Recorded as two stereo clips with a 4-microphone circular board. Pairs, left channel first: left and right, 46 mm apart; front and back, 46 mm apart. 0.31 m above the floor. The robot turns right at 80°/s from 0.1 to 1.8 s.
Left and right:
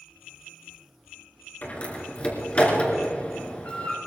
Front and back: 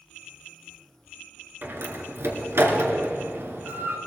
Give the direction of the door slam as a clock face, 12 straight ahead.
7 o'clock.